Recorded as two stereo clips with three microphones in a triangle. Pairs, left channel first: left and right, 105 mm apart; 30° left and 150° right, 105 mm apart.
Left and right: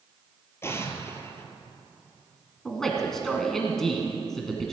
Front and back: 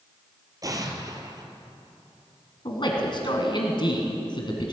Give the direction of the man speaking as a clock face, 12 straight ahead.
12 o'clock.